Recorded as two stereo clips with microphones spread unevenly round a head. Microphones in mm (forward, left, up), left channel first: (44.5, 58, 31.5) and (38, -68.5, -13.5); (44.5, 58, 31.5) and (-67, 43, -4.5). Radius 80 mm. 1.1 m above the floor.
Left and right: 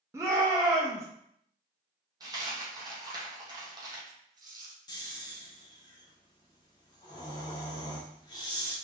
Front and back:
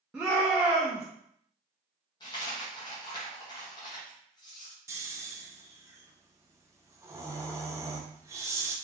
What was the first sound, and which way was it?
A shout, 115° right.